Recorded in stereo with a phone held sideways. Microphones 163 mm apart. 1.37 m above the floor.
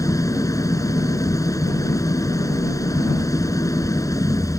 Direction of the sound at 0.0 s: 20° left (ahead or behind).